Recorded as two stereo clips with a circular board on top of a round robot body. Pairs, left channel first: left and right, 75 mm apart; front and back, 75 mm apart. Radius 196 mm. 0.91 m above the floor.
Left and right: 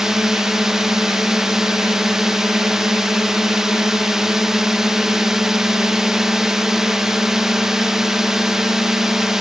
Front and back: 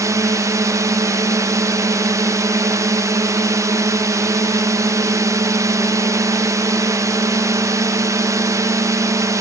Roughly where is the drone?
Behind.